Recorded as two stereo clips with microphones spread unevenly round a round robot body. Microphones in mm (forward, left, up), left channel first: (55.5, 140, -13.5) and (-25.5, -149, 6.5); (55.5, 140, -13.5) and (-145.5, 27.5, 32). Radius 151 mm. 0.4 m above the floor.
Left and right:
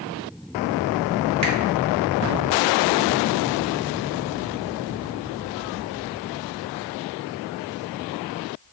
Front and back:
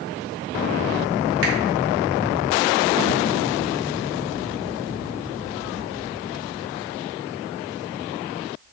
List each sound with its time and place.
1.4 s a finger snap: 125° right, 1.0 m